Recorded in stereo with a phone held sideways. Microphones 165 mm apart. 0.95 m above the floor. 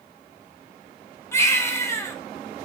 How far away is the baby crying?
About 2.5 m.